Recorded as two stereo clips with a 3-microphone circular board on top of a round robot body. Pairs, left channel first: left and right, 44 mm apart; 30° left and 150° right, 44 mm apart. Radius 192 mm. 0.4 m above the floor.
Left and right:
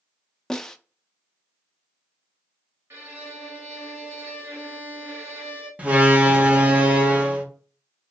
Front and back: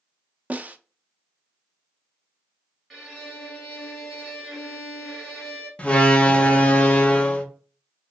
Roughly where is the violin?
Ahead right.